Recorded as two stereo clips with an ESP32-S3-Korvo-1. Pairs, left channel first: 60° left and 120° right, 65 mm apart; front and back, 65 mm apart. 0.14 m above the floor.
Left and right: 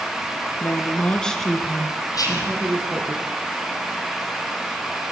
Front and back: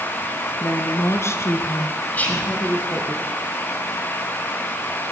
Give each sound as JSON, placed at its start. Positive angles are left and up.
{"t": 0.6, "sound": "a woman speaking", "azimuth_deg": 15, "distance_m": 2.5}
{"t": 2.1, "sound": "whispering", "azimuth_deg": 60, "distance_m": 5.5}